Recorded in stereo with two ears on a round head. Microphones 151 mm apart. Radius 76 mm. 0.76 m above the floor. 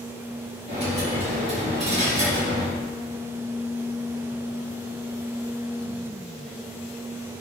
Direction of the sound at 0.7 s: 35° right (ahead or behind).